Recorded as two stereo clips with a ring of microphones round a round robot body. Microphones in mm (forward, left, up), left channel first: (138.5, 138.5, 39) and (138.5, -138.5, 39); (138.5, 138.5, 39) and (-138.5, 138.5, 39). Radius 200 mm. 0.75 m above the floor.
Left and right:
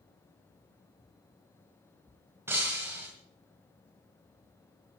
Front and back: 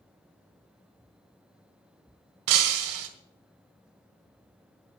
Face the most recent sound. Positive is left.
turn(degrees=-175)